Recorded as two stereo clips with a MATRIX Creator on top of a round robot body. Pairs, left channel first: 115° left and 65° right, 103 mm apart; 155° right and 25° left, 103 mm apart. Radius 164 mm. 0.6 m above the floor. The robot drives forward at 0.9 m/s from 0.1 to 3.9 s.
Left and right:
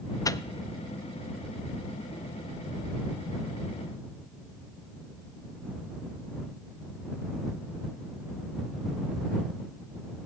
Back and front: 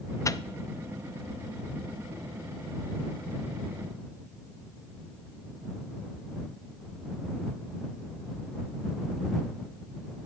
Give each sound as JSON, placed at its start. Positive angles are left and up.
{"t": 0.2, "sound": "a microwave", "azimuth_deg": 155, "distance_m": 0.5}